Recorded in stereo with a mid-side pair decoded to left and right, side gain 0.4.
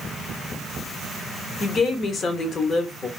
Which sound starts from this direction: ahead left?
A woman speaking, at 1.6 s.